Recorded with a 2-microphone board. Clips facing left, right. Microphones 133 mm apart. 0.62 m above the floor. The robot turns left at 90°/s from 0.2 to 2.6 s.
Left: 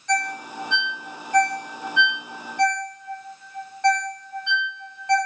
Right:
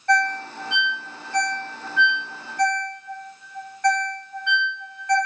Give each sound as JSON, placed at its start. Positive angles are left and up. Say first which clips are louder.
{"t": 0.1, "sound": "a ringtone", "louder": "right 4 dB", "side_deg": -60, "distance_m": 0.7}